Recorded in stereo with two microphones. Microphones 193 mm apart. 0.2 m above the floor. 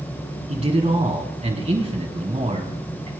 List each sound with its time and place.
0.5 s a man speaking: 35° right (ahead or behind), 1.5 m